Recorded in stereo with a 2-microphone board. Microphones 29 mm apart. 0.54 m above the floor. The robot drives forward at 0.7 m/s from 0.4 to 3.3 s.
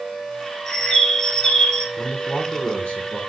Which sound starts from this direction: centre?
A bird, at 0.7 s.